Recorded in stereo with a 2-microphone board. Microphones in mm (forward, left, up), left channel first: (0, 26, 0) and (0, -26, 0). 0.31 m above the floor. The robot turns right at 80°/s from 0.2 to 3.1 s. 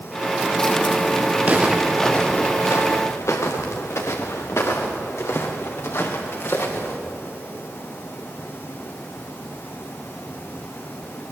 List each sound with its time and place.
1.4 s footsteps: 35° right (ahead or behind), 3.5 m; by 7.0 s 55° left (ahead or behind), 5.5 m